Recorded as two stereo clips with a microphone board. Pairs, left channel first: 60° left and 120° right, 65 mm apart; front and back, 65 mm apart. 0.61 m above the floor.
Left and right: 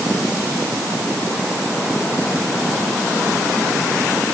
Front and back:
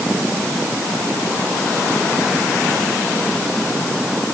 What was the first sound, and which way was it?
Only background noise.